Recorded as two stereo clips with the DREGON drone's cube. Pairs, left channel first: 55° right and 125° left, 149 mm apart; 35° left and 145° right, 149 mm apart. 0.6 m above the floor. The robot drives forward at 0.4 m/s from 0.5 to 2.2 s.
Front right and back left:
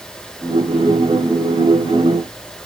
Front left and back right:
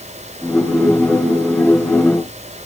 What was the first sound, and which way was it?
Only background noise.